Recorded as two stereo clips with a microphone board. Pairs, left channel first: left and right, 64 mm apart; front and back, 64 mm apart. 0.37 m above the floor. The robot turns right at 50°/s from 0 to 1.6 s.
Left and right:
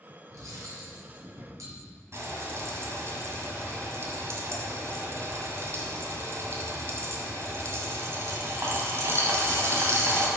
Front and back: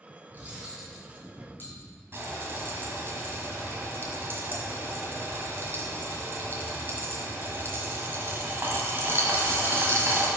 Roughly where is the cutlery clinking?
Behind right.